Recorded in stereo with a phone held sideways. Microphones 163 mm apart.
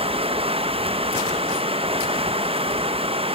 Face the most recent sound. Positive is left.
turn(degrees=-35)  # may be behind; listen again after turning